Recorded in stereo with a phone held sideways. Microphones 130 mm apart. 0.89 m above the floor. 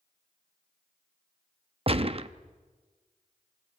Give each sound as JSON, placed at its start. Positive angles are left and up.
{"t": 1.9, "sound": "a gunshot", "side_deg": -45, "distance_m": 0.6}